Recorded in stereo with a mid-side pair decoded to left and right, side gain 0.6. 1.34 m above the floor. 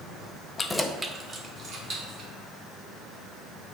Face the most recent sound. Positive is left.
turn(degrees=-55)